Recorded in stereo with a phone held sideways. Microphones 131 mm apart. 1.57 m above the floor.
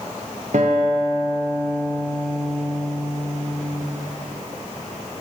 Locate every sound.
0.5 s a guitar: 65° right (ahead or behind), 0.9 m